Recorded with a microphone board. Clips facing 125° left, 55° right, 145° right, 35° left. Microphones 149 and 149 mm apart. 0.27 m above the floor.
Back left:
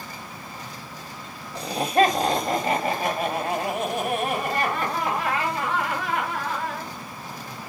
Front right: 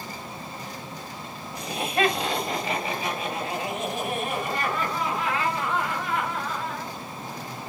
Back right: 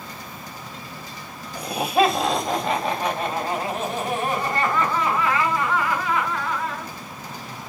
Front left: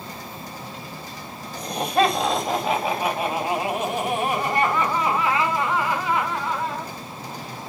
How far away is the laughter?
About 1.6 m.